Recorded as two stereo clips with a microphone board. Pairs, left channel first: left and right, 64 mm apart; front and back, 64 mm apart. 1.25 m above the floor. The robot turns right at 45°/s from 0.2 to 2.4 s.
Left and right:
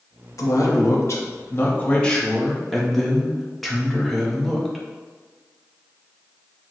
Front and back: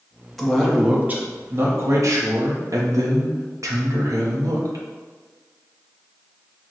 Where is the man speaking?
85° left, 0.9 m; by 4.8 s straight behind, 0.9 m.